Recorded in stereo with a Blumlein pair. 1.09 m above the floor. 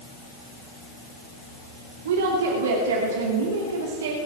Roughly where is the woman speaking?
Ahead right.